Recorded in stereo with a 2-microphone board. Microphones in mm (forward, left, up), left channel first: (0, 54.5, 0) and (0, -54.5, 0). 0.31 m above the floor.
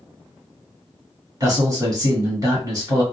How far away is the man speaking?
About 1.4 m.